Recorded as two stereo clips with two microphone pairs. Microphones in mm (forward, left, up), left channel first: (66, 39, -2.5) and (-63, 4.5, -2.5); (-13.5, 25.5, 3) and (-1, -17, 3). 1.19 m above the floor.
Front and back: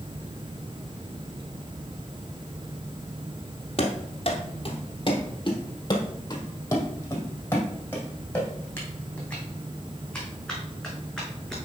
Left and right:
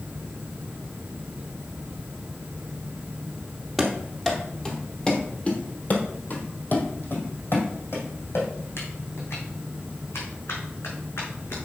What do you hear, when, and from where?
3.8 s running footsteps: 10° left, 1.7 m; by 11.6 s 105° left, 4.5 m